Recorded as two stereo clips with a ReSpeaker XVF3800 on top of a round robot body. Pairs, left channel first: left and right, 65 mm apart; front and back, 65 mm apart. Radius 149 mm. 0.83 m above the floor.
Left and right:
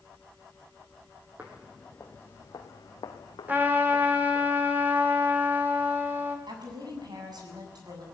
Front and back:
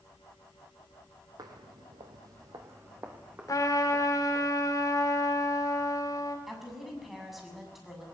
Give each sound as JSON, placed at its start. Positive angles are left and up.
{"t": 1.4, "sound": "footsteps", "azimuth_deg": -160, "distance_m": 1.6}
{"t": 3.5, "sound": "a trumpet", "azimuth_deg": -30, "distance_m": 3.5}
{"t": 6.5, "sound": "a woman speaking", "azimuth_deg": -90, "distance_m": 7.0}